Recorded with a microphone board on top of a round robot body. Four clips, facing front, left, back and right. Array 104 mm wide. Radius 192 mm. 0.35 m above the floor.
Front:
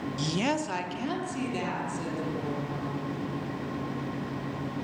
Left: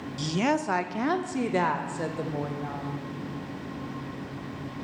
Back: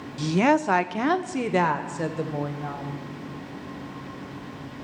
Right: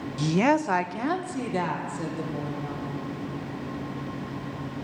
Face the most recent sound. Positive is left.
turn(degrees=150)